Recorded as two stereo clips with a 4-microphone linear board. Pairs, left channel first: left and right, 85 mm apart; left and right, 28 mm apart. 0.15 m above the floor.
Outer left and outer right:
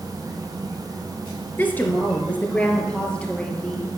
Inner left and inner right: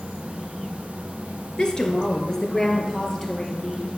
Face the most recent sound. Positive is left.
turn(degrees=10)  # may be behind; listen again after turning